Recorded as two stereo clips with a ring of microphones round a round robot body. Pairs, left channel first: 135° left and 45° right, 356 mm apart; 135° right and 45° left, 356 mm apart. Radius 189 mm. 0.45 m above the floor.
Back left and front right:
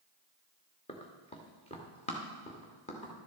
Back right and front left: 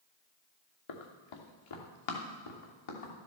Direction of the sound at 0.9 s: 150° right.